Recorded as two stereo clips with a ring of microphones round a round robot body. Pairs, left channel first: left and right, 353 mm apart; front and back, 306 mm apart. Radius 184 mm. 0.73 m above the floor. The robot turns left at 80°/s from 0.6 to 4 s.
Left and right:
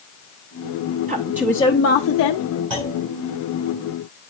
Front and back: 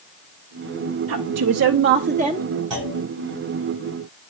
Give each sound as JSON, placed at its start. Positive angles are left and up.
{"t": 1.1, "sound": "a woman speaking", "azimuth_deg": -150, "distance_m": 0.7}
{"t": 2.7, "sound": "a clunk", "azimuth_deg": -135, "distance_m": 5.5}